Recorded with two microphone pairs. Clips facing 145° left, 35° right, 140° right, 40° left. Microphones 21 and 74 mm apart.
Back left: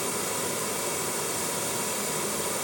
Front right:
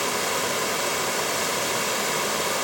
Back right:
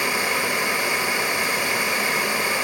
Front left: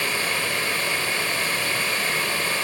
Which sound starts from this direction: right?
Running water, at 0.0 s.